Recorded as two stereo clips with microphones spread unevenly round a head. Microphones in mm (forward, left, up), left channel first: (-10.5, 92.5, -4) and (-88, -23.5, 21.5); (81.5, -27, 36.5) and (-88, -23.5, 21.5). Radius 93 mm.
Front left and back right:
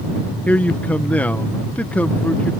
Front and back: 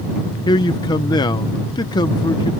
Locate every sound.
0.5 s a man speaking: 35° right